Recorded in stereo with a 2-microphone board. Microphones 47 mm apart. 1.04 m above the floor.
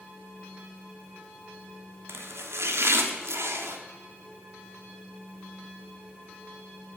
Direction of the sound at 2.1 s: 70° right (ahead or behind).